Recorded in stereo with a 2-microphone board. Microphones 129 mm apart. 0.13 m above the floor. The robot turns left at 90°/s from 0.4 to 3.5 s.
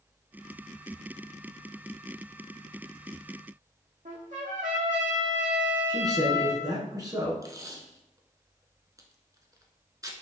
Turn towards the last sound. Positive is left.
turn(degrees=-25)  # may be behind; listen again after turning